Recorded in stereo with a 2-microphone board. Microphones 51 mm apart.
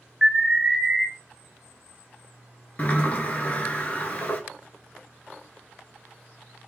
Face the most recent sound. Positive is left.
turn(degrees=35)  # may be behind; listen again after turning